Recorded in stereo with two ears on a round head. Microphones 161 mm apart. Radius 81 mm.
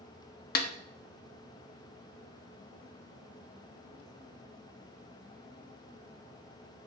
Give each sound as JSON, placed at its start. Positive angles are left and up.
{"t": 0.6, "sound": "a snare drum", "side_deg": 55, "distance_m": 1.2}